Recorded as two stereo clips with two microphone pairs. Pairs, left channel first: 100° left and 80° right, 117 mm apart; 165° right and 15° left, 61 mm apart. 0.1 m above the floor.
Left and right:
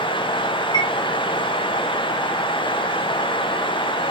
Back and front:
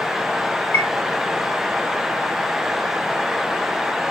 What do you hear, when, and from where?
0.7 s a chime: 150° left, 1.2 m